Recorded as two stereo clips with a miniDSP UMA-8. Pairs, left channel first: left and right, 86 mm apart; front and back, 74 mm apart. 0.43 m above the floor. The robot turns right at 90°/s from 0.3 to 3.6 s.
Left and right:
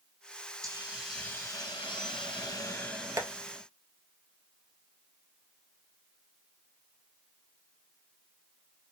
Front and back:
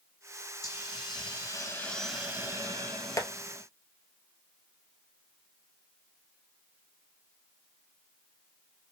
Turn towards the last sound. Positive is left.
turn(degrees=-5)